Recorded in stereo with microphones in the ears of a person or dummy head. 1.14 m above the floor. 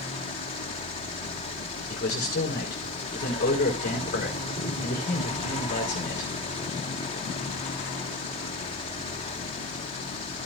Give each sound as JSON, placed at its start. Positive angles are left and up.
{"t": 1.9, "sound": "a man speaking", "side_deg": 45, "distance_m": 4.5}